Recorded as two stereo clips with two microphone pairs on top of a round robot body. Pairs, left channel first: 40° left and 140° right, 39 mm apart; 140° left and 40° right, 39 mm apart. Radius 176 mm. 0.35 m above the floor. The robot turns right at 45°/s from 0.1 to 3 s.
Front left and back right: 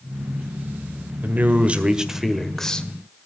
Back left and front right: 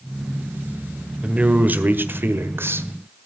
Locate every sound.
1.2 s a man speaking: 105° right, 1.8 m; by 2.9 s 30° right, 1.8 m